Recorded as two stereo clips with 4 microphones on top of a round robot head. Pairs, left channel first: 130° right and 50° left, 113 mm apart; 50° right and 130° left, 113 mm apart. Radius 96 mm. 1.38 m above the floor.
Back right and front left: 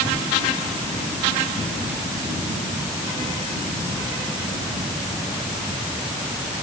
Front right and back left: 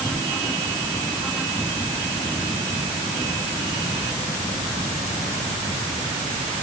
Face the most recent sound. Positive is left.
No sound to turn to.